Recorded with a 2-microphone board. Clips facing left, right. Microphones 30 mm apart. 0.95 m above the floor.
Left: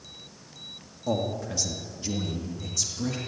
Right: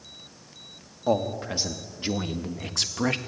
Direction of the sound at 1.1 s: 30° right (ahead or behind).